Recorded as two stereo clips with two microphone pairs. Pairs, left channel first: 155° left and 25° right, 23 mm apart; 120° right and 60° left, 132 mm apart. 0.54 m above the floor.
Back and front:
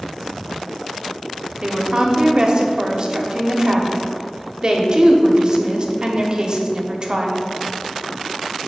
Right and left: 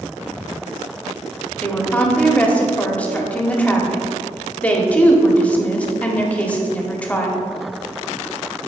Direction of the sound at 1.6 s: 45° right.